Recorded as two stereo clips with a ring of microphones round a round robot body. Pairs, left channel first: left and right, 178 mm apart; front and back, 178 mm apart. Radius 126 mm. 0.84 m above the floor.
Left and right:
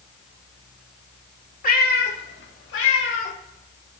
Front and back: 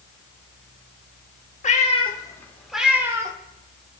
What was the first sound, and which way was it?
A cat meowing, 50° left.